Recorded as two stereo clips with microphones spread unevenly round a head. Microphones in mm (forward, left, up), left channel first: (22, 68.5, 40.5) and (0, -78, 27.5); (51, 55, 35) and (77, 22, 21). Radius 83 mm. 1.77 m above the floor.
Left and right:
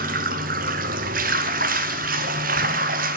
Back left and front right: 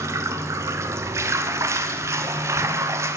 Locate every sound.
0.0 s running water: 70° right, 0.7 m